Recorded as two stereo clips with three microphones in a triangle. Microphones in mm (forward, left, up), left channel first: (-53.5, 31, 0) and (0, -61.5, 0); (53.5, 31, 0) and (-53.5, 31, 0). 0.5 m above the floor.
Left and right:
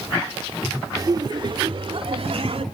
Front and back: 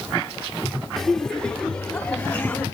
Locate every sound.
1.0 s laughter: 85° right, 1.0 m; by 2.6 s 75° right, 2 m